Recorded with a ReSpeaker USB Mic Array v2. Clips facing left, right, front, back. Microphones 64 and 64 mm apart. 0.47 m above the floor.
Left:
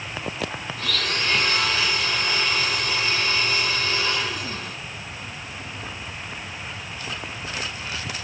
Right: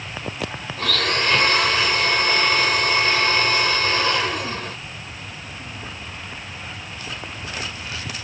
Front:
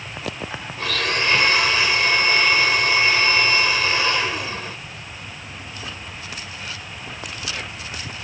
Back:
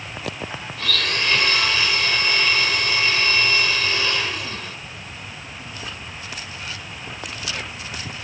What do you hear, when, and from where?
0.8 s a blender: 60° right, 0.9 m